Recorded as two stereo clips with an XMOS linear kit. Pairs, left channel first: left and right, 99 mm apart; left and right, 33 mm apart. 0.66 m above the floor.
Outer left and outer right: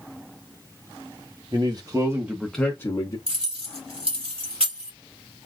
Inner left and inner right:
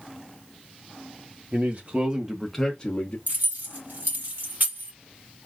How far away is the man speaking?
About 1.3 m.